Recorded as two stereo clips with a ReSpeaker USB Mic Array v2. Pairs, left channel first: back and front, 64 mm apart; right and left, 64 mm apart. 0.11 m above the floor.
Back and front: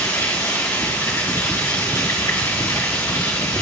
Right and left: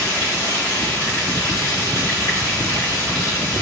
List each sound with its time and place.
0.0 s running water: 145° right, 3 m